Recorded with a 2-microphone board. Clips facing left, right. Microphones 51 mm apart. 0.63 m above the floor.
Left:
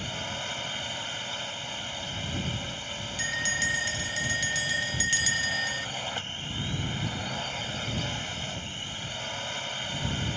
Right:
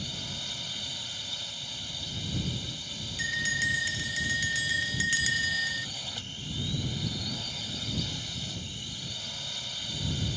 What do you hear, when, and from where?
0.0 s a drone: 40° left (ahead or behind)
3.2 s a bell: centre (ahead or behind)